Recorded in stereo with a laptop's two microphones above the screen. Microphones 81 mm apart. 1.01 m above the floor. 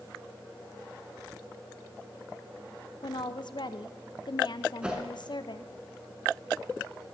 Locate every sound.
3.0 s a woman speaking: 60° left (ahead or behind), 0.5 m
4.8 s a whoosh: 10° right (ahead or behind), 1.9 m